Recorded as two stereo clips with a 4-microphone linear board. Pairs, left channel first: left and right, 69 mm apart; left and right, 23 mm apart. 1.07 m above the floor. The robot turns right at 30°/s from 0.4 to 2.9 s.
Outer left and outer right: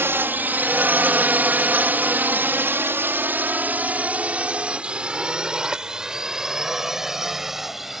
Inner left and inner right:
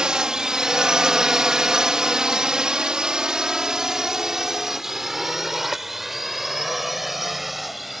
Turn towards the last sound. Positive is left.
turn(degrees=-5)  # may be behind; listen again after turning